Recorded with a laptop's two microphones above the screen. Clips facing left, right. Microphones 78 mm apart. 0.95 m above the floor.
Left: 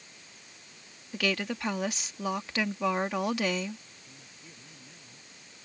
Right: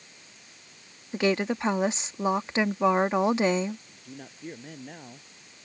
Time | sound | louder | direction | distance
1.1 | a woman speaking | right 6 dB | 25° right (ahead or behind) | ?
3.9 | a man speaking | right 9 dB | 60° right (ahead or behind) | ?